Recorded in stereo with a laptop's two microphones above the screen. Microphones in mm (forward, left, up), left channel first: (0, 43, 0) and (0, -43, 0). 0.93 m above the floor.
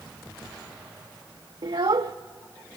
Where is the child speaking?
65° right (ahead or behind), 0.5 m.